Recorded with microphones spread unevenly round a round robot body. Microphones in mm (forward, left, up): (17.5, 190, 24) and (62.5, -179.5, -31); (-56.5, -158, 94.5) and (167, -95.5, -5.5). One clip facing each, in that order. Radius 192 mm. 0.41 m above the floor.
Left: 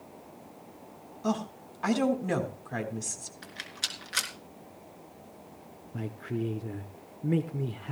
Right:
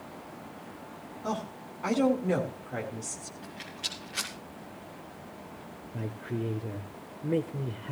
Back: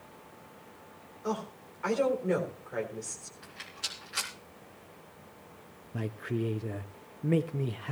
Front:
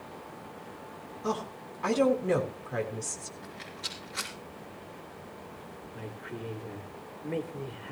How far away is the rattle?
About 3.5 m.